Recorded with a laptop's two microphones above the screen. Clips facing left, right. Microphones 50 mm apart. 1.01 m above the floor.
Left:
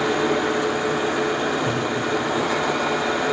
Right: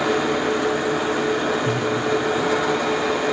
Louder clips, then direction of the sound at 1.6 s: Right 1 dB; 20° right (ahead or behind).